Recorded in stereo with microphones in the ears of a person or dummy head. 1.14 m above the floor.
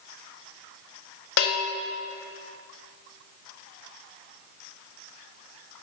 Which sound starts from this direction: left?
A bell, at 1.4 s.